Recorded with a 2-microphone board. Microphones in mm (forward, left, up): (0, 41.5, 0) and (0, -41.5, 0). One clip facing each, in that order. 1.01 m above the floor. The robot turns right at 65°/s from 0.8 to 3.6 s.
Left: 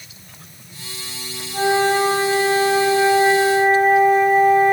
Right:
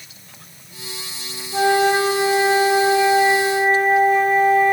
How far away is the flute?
About 4.5 m.